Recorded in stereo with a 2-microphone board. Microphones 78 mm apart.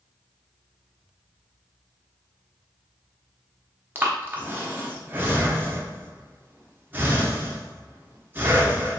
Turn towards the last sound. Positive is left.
turn(degrees=-25)  # may be behind; listen again after turning